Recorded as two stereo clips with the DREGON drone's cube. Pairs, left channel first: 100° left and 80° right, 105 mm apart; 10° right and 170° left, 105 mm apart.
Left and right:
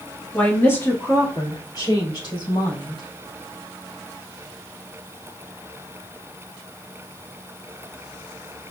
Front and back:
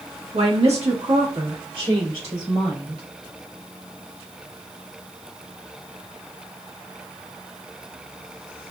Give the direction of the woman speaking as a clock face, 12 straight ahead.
6 o'clock.